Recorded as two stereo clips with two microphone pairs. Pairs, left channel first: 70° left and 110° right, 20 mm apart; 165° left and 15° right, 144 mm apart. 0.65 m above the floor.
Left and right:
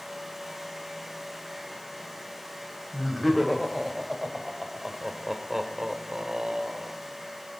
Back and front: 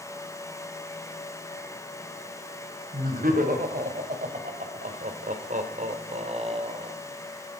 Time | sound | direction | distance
2.9 | laughter | 15° right | 3.5 m